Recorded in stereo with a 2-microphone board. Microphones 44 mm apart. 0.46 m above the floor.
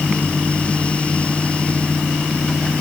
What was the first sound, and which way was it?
Only background noise.